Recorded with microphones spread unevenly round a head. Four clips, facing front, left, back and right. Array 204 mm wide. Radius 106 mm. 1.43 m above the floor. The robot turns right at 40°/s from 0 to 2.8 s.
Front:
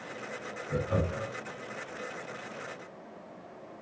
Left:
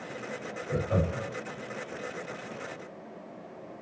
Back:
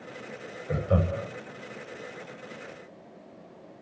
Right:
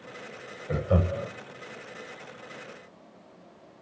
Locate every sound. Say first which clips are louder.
0.7 s laughter: right 3 dB, back 4 dB; 125° right, 6.5 m; by 1.3 s 105° right, 6.5 m